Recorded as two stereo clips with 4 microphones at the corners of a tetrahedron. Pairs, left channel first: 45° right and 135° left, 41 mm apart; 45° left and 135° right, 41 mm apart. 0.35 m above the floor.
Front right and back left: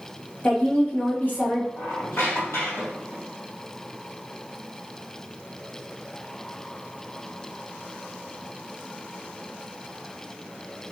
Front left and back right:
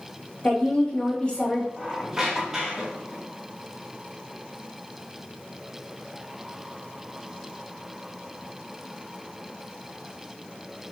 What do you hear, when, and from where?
0.4 s a woman speaking: 10° right, 1.7 m
1.8 s a squeak: 55° right, 1.9 m